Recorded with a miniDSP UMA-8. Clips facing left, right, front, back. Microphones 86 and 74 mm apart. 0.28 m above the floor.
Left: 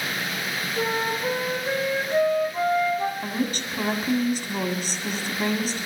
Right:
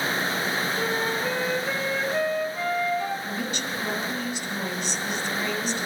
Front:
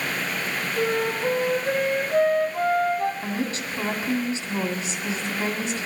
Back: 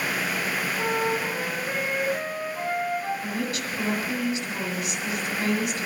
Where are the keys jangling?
I don't hear keys jangling.